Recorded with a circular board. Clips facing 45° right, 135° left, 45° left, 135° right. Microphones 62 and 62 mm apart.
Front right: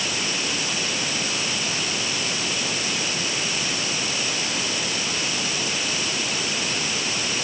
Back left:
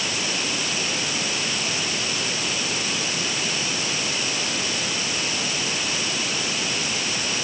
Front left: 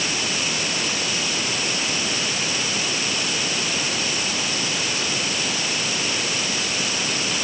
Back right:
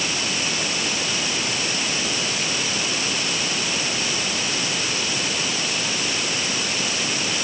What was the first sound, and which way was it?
Only background noise.